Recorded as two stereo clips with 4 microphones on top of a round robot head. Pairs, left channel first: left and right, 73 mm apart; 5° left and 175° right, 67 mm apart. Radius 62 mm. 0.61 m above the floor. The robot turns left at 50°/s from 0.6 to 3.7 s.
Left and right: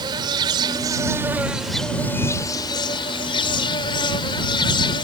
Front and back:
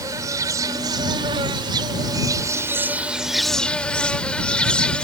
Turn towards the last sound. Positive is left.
turn(degrees=80)